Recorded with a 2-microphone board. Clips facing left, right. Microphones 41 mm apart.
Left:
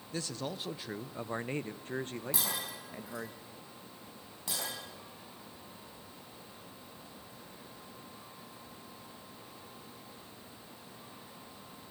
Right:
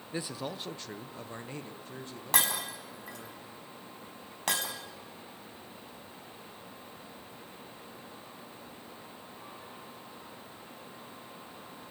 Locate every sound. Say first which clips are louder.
0.1 s a man speaking: right 1 dB; 20° right (ahead or behind), 0.9 m; by 3.3 s 65° left (ahead or behind), 2 m
2.3 s breaking glass: right 11 dB; 65° right (ahead or behind), 4.5 m